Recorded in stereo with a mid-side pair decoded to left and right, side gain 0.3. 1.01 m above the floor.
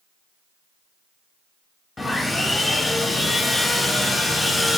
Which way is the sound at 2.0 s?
40° left.